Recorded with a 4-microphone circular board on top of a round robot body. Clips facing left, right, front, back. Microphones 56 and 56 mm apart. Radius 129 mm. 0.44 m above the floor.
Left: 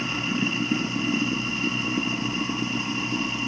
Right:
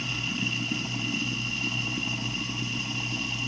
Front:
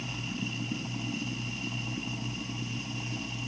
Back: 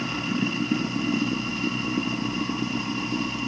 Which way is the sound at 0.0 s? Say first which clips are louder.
Left 5 dB, back 10 dB; 145° left.